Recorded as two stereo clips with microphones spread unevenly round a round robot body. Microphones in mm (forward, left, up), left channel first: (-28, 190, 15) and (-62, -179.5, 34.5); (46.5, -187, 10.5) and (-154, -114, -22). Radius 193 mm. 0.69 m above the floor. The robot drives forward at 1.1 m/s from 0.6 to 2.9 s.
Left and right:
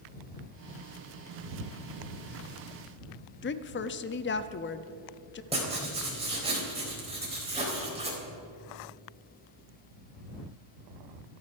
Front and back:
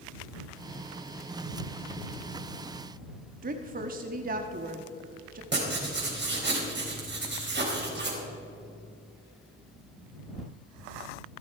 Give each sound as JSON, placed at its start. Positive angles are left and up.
{"t": 3.4, "sound": "a woman speaking", "azimuth_deg": 135, "distance_m": 0.8}
{"t": 5.5, "sound": "writing", "azimuth_deg": -170, "distance_m": 4.0}